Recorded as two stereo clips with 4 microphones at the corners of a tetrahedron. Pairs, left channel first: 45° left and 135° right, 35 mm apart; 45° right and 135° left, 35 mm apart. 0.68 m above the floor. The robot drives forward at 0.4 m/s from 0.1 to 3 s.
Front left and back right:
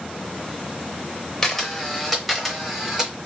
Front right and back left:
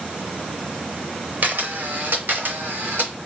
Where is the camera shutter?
115° left, 0.7 m; by 3.2 s 145° left, 1.1 m.